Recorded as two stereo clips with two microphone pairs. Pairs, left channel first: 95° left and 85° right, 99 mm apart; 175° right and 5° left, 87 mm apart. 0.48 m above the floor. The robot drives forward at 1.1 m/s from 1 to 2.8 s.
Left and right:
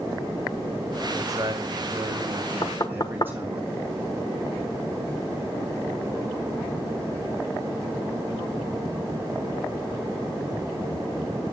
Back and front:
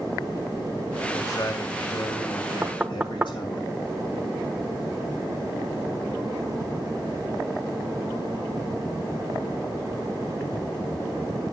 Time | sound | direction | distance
1.1 | a man speaking | 120° right | 2 m
2.6 | knocking | 65° left | 0.9 m